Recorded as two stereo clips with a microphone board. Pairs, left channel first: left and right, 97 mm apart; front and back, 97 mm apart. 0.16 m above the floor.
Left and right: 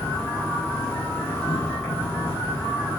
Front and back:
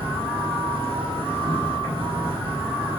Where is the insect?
155° left, 6.5 m.